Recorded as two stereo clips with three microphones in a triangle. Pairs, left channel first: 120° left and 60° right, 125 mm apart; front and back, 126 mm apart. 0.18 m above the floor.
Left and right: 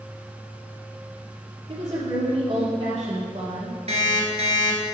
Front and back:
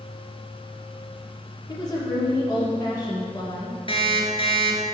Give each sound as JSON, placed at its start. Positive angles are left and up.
{"t": 1.7, "sound": "a woman speaking", "azimuth_deg": -50, "distance_m": 1.6}
{"t": 3.9, "sound": "an alarm clock", "azimuth_deg": -40, "distance_m": 1.8}